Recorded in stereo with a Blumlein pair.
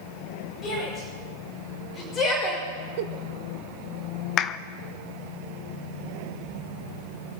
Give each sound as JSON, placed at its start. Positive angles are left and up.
{"t": 0.6, "sound": "a shout", "azimuth_deg": 30, "distance_m": 6.0}
{"t": 3.0, "sound": "a giggle", "azimuth_deg": -50, "distance_m": 0.8}
{"t": 4.4, "sound": "a clap", "azimuth_deg": 30, "distance_m": 0.5}